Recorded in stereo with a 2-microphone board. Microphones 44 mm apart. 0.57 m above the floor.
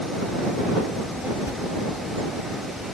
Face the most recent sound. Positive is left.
turn(degrees=-70)  # may be behind; listen again after turning